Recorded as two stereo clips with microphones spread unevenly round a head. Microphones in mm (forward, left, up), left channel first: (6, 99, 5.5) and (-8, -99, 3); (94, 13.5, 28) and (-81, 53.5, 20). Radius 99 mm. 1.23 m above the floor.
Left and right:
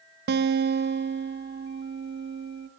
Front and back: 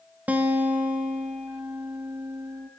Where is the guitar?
115° right, 0.6 m.